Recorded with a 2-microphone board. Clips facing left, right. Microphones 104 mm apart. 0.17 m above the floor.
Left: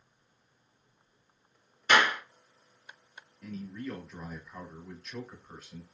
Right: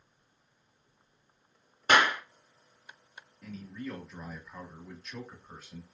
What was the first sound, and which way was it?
A clap, 50° right (ahead or behind).